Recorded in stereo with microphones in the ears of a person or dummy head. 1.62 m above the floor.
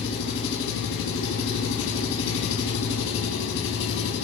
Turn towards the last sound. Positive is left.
turn(degrees=75)  # may be behind; listen again after turning